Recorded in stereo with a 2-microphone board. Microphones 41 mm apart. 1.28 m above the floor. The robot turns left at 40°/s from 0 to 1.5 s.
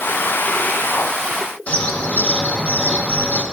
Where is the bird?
35° left (ahead or behind), 0.6 m.